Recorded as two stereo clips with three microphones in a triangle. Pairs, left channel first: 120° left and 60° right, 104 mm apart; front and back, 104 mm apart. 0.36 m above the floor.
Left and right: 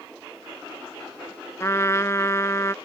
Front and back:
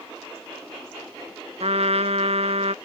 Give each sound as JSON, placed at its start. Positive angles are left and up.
{"t": 1.6, "sound": "a trumpet", "azimuth_deg": -175}